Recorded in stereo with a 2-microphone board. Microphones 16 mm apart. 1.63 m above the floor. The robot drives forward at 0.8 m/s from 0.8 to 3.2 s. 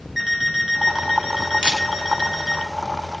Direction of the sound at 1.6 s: 85° right.